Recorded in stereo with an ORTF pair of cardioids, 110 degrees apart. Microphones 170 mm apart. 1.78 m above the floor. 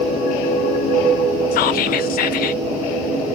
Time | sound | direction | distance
1.5 | whispering | 60° left | 0.7 m